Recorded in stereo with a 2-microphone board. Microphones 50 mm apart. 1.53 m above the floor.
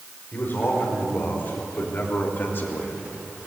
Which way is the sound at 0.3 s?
40° left (ahead or behind).